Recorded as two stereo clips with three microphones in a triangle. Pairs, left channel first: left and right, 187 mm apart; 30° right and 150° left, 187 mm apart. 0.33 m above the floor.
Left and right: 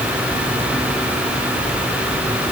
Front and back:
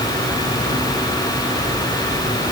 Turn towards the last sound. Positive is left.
No sound to turn to.